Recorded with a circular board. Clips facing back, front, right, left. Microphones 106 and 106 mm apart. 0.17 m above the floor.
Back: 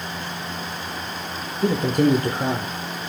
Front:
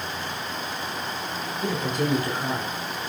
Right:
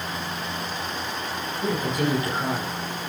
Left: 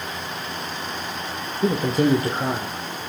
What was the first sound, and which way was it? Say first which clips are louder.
A man speaking: back 8 dB, left 6 dB; 135° left.